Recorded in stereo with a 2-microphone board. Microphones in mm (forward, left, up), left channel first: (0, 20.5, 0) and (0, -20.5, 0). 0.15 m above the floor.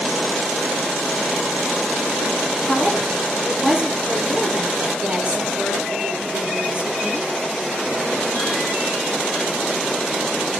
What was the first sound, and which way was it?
A woman speaking, 30° right (ahead or behind).